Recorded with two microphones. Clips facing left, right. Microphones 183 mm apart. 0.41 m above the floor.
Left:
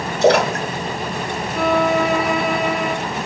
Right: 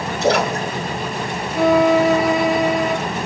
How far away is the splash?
About 3.5 m.